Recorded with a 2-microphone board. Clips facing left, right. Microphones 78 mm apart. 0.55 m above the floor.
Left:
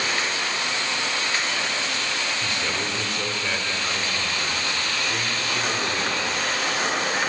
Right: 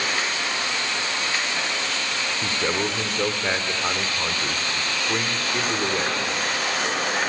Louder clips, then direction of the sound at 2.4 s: Right 3 dB; 35° right (ahead or behind).